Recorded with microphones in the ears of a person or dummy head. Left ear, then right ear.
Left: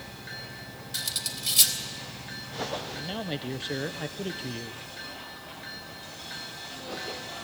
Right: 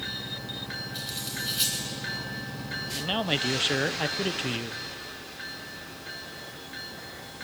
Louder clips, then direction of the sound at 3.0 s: Right 7 dB; 30° right (ahead or behind).